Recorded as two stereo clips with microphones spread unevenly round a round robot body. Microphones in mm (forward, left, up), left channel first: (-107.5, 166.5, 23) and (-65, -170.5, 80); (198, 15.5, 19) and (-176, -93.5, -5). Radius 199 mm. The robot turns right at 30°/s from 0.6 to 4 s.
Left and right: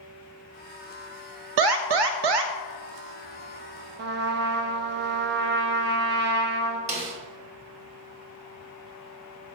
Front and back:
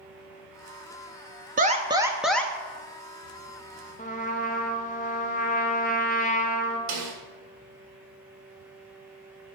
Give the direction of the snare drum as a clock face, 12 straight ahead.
5 o'clock.